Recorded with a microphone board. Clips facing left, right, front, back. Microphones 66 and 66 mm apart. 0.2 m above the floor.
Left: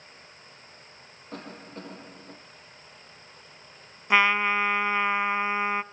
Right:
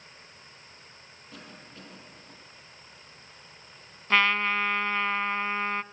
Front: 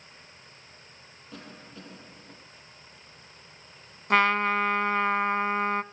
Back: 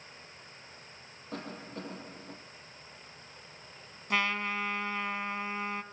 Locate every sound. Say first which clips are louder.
1.3 s a cough: left 8 dB, back 5 dB; 135° left, 6 m
4.1 s a trumpet: left 2 dB, front 9 dB; 20° left, 0.7 m